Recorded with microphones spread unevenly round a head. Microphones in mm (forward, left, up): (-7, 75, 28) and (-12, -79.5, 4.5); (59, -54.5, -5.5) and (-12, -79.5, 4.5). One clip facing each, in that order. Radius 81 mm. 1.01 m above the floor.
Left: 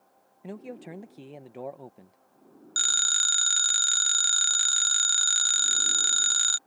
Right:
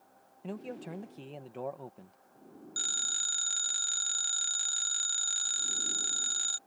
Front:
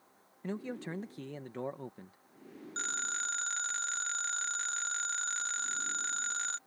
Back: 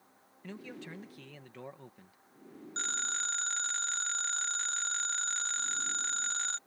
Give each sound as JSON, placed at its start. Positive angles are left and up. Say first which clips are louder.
{"t": 0.4, "sound": "a man speaking", "louder": "left 1 dB, front 6 dB", "azimuth_deg": 5}
{"t": 2.8, "sound": "a phone ringing", "louder": "left 7 dB, even", "azimuth_deg": 110}